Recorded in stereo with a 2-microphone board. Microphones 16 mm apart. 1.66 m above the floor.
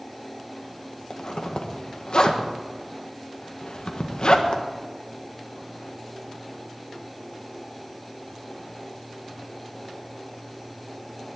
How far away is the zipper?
About 1.5 m.